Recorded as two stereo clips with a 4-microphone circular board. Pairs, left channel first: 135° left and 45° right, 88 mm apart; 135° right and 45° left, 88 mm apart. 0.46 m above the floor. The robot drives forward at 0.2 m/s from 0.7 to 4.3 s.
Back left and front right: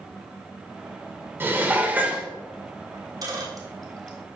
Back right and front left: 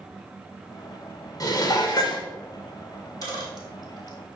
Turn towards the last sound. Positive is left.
turn(degrees=-90)